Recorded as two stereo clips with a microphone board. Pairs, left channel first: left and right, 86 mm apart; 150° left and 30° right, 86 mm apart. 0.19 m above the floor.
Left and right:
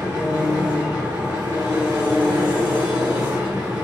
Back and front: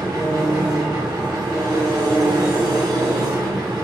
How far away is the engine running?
About 1.9 m.